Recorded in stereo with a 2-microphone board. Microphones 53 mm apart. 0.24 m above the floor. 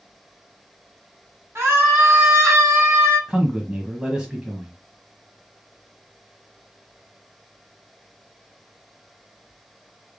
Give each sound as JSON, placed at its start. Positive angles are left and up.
{"t": 1.6, "sound": "a scream", "side_deg": -50, "distance_m": 2.5}
{"t": 3.3, "sound": "a man speaking", "side_deg": -15, "distance_m": 1.3}